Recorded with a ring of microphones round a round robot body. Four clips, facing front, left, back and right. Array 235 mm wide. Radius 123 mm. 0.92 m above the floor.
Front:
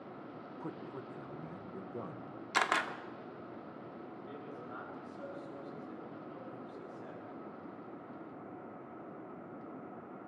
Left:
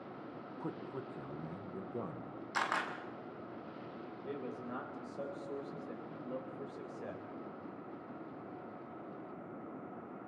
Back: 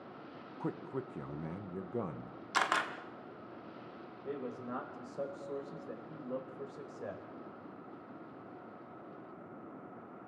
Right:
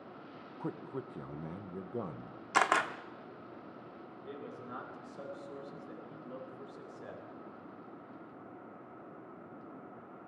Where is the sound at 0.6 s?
150° right, 0.8 m.